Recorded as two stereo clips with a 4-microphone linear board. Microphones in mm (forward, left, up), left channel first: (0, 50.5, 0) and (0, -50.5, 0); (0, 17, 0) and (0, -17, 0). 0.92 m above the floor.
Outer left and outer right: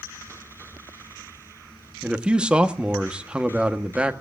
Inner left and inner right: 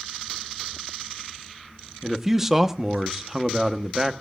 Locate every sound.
2.0 s a man speaking: 10° right (ahead or behind), 1.1 m